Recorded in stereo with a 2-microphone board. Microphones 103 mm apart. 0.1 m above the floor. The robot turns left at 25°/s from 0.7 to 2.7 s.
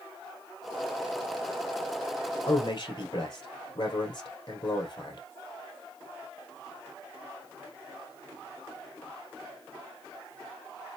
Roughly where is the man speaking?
Left.